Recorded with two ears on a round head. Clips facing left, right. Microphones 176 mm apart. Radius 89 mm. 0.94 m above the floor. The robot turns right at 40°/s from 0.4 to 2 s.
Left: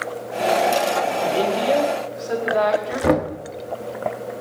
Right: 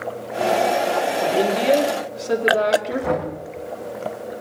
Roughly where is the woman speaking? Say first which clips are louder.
Right 3 dB; behind.